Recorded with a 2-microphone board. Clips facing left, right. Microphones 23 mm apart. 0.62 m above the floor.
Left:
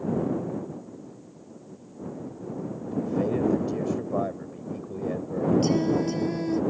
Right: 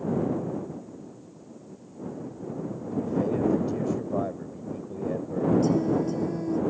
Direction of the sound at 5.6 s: 65° left (ahead or behind).